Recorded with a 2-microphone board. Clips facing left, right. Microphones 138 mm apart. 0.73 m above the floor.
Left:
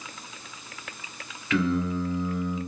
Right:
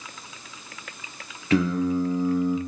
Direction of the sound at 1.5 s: 35° right (ahead or behind).